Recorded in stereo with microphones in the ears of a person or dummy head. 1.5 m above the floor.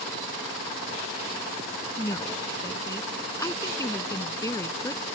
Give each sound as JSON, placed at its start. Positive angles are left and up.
{"t": 2.0, "sound": "a woman speaking", "side_deg": 15}